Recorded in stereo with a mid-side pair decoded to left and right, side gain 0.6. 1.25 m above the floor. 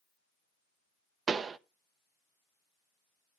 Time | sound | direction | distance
1.3 | a pop | 35° right | 0.7 m